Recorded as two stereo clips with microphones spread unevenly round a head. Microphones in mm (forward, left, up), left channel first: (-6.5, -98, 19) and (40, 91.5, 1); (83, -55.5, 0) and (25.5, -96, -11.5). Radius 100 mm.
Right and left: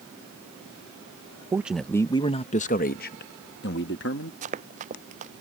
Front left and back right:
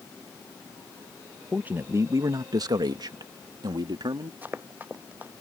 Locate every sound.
1.5 s a man speaking: 145° left; by 4.3 s 140° right
4.4 s running footsteps: 135° left